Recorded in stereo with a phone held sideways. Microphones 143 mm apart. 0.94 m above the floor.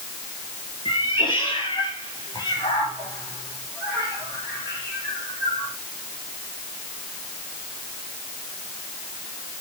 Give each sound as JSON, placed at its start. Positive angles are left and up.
{"t": 0.8, "sound": "a cat meowing", "side_deg": 35, "distance_m": 5.0}